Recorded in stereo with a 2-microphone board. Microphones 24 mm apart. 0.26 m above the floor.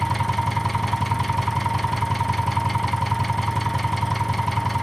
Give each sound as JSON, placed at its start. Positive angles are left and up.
{"t": 0.0, "sound": "an engine running", "side_deg": 0, "distance_m": 0.8}